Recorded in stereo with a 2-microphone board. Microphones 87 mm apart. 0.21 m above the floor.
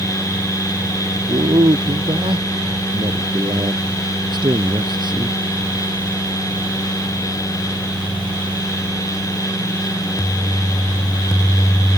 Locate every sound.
1.3 s a man speaking: 80° right; by 5.4 s 60° right (ahead or behind)